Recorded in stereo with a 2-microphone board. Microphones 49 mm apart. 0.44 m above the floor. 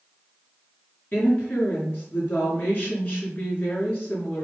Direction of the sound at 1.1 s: 30° left (ahead or behind).